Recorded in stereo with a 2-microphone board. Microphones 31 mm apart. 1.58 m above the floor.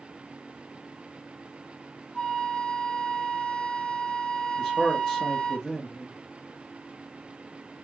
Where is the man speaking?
5° right (ahead or behind), 0.8 m.